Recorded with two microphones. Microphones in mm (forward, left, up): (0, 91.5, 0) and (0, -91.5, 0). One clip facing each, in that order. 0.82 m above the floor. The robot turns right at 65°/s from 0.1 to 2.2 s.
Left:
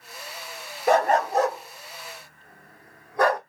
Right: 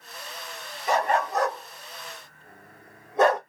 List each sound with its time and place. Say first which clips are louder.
0.9 s a dog barking: left 4 dB; 55° left (ahead or behind), 0.7 m; by 3.4 s 25° right (ahead or behind), 0.7 m